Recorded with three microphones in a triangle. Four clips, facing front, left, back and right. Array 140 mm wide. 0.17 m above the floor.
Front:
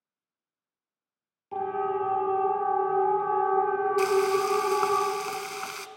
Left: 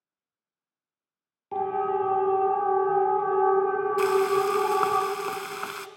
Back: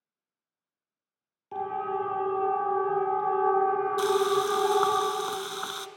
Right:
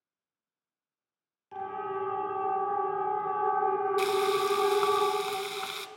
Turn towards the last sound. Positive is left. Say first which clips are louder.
# left 7 dB, front 1 dB
turn(degrees=105)